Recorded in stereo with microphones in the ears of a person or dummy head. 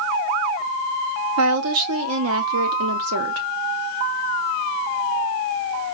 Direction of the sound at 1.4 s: 80° right.